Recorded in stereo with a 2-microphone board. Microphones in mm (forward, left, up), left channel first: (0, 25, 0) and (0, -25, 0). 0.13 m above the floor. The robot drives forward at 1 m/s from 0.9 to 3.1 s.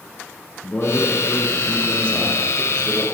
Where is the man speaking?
25° left (ahead or behind), 1.4 m; by 3.0 s 15° left (ahead or behind), 2.5 m.